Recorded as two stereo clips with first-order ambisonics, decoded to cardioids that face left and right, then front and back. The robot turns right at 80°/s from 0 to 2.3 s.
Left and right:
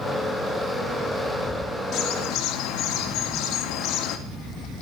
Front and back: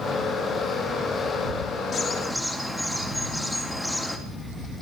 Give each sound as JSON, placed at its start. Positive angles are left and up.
{"t": 1.9, "sound": "a bird", "azimuth_deg": 60, "distance_m": 1.3}